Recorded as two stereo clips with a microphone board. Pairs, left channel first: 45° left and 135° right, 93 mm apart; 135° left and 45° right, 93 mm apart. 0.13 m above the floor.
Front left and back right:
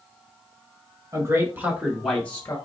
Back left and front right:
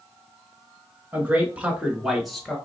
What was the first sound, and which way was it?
A man speaking, 105° right.